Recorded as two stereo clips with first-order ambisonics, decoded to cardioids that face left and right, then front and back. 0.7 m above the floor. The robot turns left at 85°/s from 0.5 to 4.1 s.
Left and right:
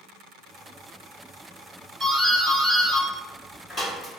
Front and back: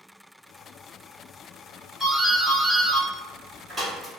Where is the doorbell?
65° right, 1.7 m; by 4.1 s 115° left, 1.7 m.